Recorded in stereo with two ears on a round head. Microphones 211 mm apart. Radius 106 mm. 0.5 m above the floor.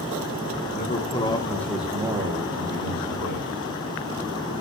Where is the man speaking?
35° left (ahead or behind), 1.6 m; by 3.6 s 45° right (ahead or behind), 2.5 m.